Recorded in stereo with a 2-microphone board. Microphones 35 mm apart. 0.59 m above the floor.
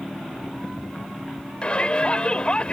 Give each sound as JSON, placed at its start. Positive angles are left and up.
{"t": 1.6, "sound": "a shout", "side_deg": 30}